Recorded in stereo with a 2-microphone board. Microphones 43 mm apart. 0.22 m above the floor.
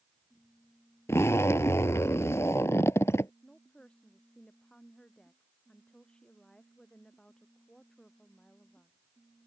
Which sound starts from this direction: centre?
A woman speaking, at 3.4 s.